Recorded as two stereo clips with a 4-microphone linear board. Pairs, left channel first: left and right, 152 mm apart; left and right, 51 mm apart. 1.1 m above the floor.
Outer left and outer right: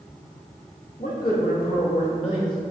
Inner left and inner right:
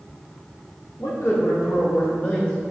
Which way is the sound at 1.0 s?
75° left (ahead or behind).